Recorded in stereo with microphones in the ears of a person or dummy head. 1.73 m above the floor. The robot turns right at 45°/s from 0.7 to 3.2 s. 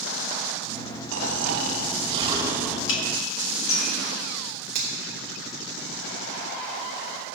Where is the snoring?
75° right, 1.1 m; by 2.8 s straight ahead, 1.1 m.